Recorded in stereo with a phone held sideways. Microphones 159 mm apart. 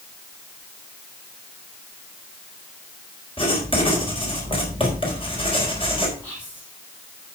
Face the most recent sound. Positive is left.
turn(degrees=10)  # may be behind; listen again after turning